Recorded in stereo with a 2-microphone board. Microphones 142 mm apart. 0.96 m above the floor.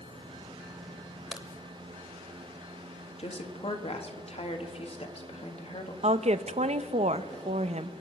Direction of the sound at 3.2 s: 45° left (ahead or behind).